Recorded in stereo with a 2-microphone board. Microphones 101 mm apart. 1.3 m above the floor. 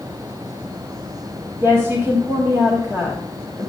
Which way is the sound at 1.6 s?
25° right (ahead or behind).